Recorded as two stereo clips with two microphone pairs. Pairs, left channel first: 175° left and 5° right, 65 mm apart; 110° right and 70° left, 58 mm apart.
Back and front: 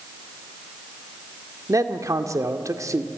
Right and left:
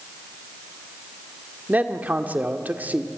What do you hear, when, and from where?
1.7 s a man speaking: 15° left, 1.7 m